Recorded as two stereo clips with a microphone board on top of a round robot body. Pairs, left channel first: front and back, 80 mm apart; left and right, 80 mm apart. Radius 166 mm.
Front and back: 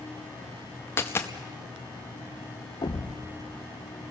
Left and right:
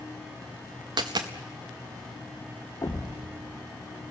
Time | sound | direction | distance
1.0 | a dropped coin | 60° right | 0.5 m
2.8 | a thud | 30° left | 0.8 m